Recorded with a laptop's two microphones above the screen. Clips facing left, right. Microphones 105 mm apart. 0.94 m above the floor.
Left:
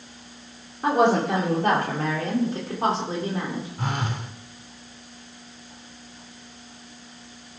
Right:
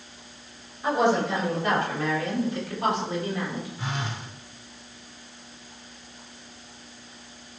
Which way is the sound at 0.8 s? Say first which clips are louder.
Left 3 dB; 60° left (ahead or behind).